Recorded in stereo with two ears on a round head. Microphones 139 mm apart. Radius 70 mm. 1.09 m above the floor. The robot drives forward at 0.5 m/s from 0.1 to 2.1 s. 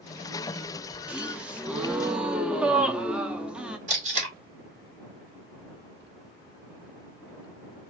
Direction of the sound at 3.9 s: 55° right (ahead or behind).